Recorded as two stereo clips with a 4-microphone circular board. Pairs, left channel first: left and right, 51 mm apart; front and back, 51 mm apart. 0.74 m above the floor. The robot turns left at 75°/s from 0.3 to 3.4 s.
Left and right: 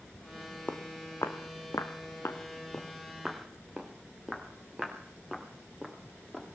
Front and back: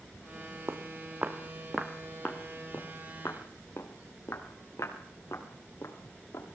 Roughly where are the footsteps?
Behind left.